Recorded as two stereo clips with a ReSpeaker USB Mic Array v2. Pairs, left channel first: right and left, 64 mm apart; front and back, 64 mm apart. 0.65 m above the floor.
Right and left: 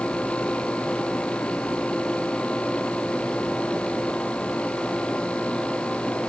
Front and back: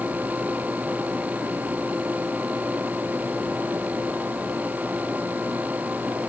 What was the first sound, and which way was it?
Only background noise.